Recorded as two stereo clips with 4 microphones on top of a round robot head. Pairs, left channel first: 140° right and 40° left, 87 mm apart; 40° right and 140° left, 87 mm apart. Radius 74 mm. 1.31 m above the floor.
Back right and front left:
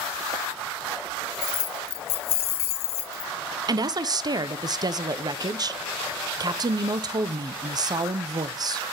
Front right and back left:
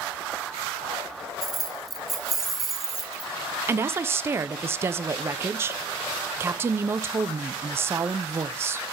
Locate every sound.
1.4 s keys jangling: 135° right, 0.7 m
3.7 s a woman speaking: 80° left, 0.8 m